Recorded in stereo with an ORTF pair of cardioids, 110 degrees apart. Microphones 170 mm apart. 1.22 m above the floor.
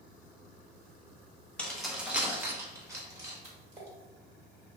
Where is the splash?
20° right, 1.5 m.